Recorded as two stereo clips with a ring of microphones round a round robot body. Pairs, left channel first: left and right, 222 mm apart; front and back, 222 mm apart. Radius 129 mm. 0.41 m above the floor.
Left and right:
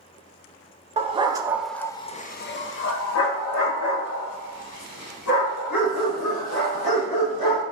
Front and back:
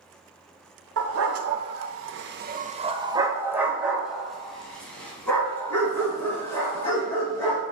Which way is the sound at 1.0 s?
150° right.